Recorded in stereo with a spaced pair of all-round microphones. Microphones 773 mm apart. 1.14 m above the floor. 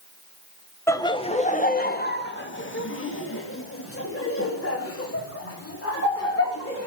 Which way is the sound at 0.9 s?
5° left (ahead or behind).